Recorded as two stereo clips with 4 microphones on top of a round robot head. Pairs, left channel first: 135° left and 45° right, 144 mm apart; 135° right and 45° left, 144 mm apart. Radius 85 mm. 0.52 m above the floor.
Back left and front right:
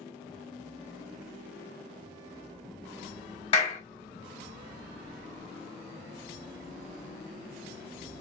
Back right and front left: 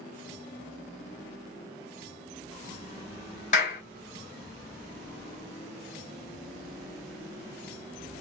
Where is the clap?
175° right, 2 m.